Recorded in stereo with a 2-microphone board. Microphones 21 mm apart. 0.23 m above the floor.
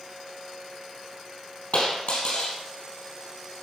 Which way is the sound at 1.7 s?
80° left.